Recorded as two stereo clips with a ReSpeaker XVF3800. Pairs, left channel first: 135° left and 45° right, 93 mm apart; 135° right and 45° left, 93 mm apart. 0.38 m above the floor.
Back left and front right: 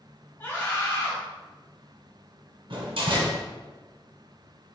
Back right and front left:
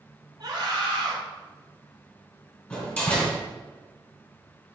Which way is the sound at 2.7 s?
65° right.